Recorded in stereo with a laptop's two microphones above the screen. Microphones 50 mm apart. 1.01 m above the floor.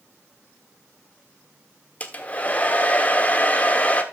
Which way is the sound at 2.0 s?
30° left (ahead or behind).